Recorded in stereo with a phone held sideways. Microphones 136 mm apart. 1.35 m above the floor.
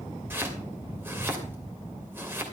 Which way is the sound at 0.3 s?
15° right (ahead or behind).